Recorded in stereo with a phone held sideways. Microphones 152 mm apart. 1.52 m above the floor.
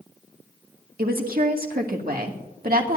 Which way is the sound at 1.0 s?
75° right (ahead or behind).